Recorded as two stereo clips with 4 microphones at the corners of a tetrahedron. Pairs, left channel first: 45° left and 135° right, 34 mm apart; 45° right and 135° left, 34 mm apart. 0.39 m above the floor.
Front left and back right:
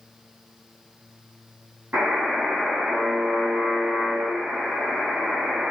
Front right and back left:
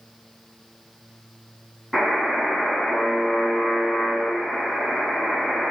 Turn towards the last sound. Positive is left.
turn(degrees=-140)